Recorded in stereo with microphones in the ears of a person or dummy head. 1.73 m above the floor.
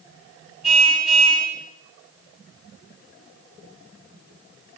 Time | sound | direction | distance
0.6 | a car horn | 5° left (ahead or behind) | 6 m